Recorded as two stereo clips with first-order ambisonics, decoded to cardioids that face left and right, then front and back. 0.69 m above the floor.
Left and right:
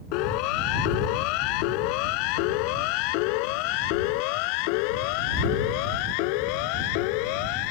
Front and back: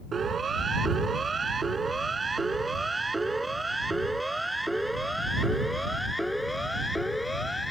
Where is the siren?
110° left; by 7.7 s 85° left.